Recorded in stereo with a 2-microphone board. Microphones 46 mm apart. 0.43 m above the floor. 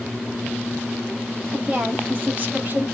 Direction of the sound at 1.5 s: 25° right (ahead or behind).